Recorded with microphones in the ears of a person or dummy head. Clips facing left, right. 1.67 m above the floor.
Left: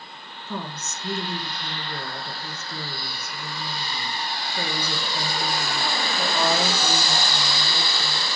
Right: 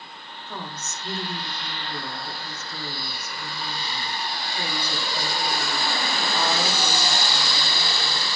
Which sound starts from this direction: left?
A woman speaking, at 0.5 s.